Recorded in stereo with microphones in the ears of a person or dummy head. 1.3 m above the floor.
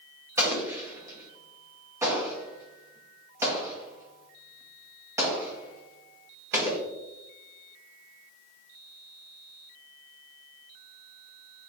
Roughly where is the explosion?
Centre.